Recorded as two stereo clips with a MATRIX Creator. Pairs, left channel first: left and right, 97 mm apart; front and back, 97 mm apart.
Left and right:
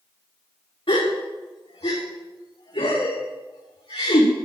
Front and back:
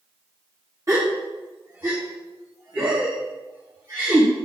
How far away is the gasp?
About 5.5 m.